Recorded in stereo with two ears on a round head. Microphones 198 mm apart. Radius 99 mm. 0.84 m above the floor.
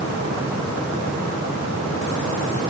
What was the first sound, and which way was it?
Only background noise.